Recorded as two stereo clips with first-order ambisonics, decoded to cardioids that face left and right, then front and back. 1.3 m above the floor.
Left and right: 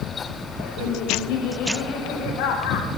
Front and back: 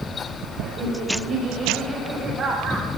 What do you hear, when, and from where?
0.6 s laughter: 115° left, 7.5 m; by 2.9 s 105° left, 7 m